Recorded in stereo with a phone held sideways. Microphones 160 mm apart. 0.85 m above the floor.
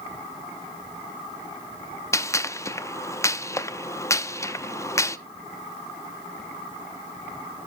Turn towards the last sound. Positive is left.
turn(degrees=20)  # may be behind; listen again after turning